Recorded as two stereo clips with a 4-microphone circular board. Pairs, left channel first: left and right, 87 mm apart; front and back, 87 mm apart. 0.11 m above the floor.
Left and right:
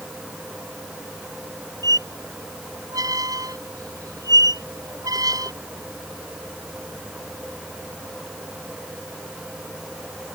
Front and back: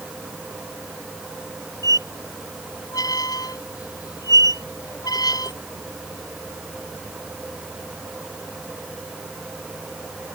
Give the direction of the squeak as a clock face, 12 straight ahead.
1 o'clock.